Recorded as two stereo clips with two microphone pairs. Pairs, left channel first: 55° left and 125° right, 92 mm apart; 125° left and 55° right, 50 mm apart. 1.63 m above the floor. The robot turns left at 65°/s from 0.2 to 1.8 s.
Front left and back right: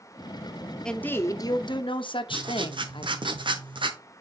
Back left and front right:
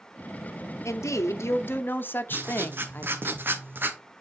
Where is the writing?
100° right, 1.0 m.